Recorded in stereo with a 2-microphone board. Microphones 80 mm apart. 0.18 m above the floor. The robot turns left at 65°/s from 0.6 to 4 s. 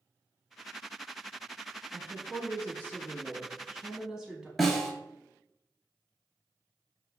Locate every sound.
1.9 s a woman speaking: 10° right (ahead or behind), 1.0 m; by 4.5 s 5° right (ahead or behind), 1.0 m
4.6 s a snare drum: centre (ahead or behind), 1.1 m